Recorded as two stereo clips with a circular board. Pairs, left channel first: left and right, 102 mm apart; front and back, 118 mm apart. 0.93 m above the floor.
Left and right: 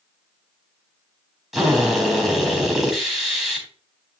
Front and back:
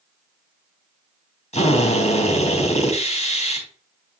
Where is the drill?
5° right, 4 m.